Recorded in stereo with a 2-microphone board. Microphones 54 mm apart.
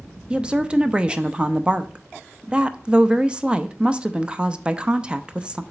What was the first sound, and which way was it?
A woman speaking, 20° right (ahead or behind).